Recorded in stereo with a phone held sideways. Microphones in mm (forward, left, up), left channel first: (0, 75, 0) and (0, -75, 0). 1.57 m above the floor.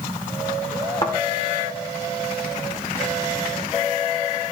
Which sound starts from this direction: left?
A thud, at 1.0 s.